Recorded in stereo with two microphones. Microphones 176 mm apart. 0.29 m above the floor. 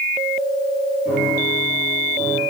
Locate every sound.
1.1 s a piano: 55° left (ahead or behind), 7.5 m